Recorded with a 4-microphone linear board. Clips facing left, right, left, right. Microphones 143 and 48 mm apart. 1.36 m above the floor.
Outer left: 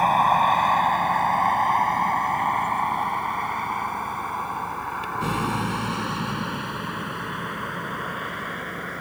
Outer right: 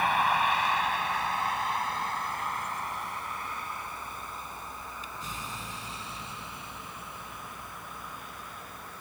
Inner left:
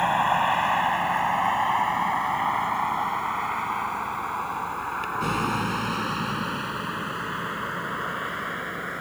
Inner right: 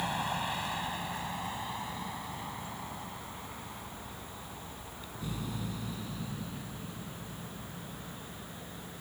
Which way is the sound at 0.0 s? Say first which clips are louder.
Outer left 7 dB, inner left 12 dB; 45° left (ahead or behind).